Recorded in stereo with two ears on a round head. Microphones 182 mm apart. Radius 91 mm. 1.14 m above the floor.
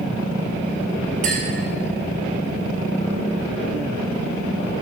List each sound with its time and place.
1.2 s a clink: 40° right (ahead or behind), 5 m